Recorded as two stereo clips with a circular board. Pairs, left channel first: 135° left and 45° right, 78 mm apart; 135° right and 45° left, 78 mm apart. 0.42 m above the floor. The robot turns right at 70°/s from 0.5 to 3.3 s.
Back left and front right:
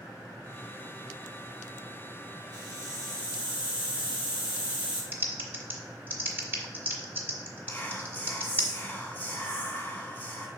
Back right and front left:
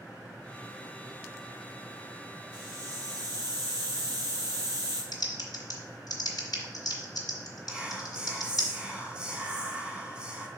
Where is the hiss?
25° right, 3 m; by 5.0 s 25° left, 3 m.